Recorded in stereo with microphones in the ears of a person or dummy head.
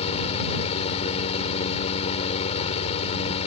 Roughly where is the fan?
Left.